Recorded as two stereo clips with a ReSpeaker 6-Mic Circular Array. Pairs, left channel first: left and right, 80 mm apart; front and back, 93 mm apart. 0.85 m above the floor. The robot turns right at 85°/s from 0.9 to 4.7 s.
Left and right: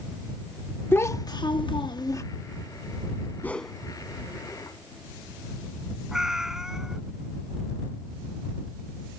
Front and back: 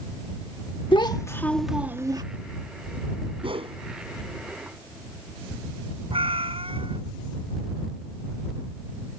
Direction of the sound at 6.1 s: 175° right.